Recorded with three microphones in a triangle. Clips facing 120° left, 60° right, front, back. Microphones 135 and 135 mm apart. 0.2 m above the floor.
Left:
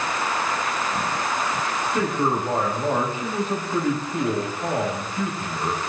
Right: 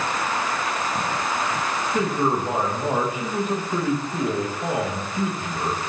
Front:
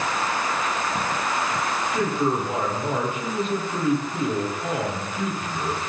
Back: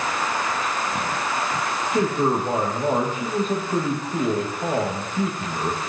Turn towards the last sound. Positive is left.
turn(degrees=-135)